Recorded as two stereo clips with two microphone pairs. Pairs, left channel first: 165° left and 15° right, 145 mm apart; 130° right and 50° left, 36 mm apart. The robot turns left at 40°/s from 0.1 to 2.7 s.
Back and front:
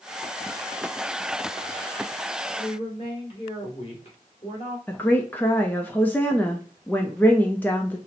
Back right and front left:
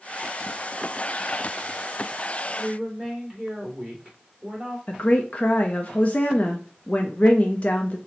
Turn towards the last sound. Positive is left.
turn(degrees=-130)